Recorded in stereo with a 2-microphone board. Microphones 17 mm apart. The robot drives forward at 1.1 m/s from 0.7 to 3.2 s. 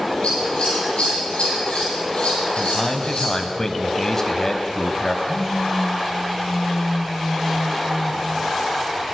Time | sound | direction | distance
0.2 | scissors | 80° left | 9.5 m
2.6 | a man speaking | 25° left (ahead or behind) | 1.7 m
5.2 | a phone buzzing | 30° left (ahead or behind) | 5 m